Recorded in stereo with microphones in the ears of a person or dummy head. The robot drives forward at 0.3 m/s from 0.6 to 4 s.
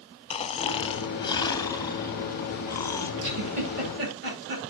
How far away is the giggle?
About 9 m.